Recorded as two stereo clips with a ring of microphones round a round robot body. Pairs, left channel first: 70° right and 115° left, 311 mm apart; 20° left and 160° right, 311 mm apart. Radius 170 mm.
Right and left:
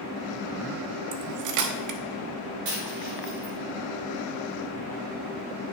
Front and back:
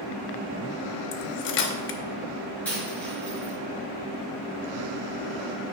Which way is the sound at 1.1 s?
80° left.